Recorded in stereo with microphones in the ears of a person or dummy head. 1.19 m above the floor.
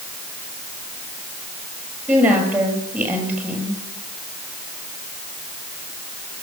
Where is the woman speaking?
15° right (ahead or behind), 7.5 m.